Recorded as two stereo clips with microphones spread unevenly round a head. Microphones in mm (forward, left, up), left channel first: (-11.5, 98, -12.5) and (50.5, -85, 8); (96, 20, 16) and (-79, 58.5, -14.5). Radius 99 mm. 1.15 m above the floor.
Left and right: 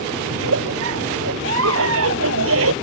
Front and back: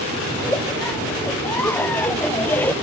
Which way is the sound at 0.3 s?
95° right.